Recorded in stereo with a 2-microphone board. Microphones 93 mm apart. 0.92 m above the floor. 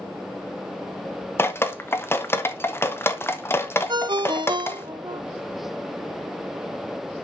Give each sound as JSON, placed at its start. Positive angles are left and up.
{"t": 1.4, "sound": "dripping", "side_deg": 25, "distance_m": 0.9}
{"t": 3.9, "sound": "a ringtone", "side_deg": -50, "distance_m": 0.7}